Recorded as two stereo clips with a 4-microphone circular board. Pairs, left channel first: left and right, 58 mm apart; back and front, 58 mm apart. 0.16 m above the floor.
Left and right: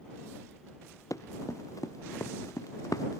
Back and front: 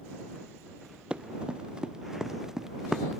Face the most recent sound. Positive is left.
turn(degrees=85)